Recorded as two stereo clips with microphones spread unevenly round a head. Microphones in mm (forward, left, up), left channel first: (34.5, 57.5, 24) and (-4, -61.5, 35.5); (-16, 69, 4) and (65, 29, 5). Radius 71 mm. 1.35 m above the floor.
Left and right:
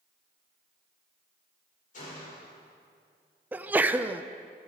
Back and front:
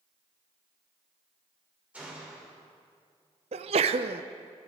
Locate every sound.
1.9 s a gunshot: 50° left, 5.5 m
3.5 s a sneeze: 30° right, 0.5 m